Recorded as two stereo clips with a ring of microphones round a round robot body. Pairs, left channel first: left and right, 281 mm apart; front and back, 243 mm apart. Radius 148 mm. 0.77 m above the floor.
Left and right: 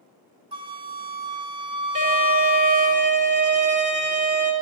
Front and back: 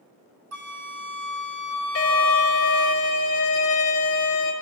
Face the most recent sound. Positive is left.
turn(degrees=-25)